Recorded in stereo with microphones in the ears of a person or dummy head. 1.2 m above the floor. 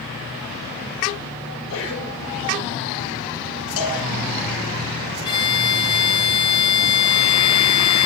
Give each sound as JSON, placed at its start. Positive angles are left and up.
{"t": 1.5, "sound": "a sneeze", "side_deg": 65, "distance_m": 8.0}
{"t": 3.8, "sound": "a cowbell", "side_deg": 70, "distance_m": 6.5}
{"t": 5.2, "sound": "a violin", "side_deg": 25, "distance_m": 1.0}